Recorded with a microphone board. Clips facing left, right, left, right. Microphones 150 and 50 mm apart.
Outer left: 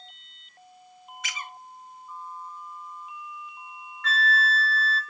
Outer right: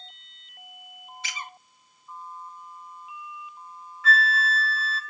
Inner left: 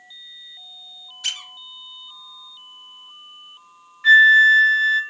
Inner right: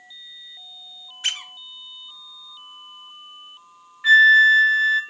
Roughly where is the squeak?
Right.